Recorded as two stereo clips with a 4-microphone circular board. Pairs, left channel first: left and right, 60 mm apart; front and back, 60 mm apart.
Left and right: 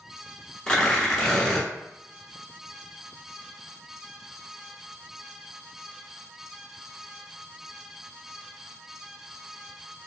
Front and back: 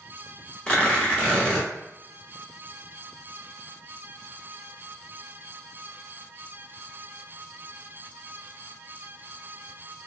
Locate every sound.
0.7 s tearing paper: 30° left, 1.0 m